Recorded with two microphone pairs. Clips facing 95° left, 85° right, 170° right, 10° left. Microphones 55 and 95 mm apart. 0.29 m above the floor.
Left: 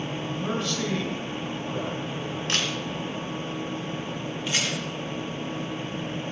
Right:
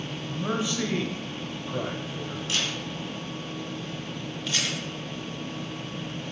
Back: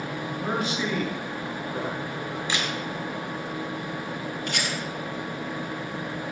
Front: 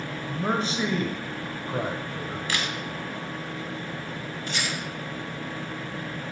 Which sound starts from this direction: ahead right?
A man speaking, at 0.3 s.